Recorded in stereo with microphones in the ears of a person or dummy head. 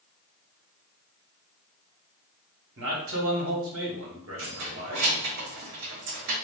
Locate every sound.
2.8 s a man speaking: 65° right (ahead or behind), 1.0 m
4.4 s keys jangling: 60° right (ahead or behind), 0.7 m